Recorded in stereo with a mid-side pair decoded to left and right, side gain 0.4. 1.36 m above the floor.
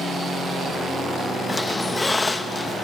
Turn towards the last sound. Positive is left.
turn(degrees=20)